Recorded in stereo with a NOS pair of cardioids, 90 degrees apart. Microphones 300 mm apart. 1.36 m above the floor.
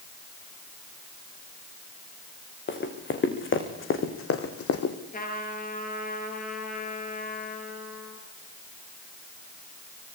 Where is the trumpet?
30° left, 5.5 m.